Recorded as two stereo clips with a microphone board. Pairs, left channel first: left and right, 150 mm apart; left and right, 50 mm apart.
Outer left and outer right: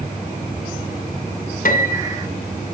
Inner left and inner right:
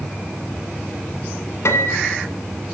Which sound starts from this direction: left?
A piano, at 1.6 s.